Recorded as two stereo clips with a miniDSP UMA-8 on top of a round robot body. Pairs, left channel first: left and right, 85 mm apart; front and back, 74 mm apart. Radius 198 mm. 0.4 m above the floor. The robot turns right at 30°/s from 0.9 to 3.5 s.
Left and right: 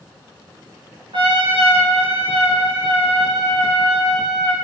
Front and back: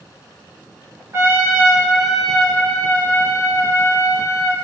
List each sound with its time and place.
1.1 s a trumpet: 120° right, 1.5 m; by 4.5 s 50° right, 1.5 m